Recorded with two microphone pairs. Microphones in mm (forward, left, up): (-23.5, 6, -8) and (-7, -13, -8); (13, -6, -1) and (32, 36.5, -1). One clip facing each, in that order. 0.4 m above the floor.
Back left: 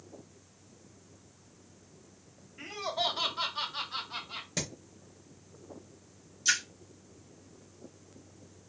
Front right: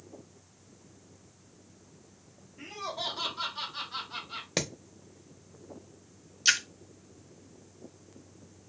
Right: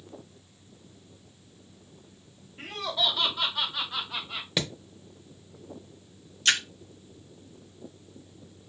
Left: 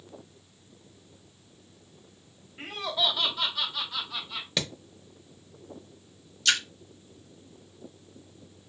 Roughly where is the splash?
Ahead right.